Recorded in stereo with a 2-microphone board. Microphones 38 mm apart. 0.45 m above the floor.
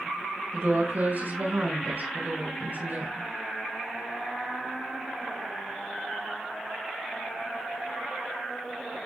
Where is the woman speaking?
60° right (ahead or behind), 5.5 m.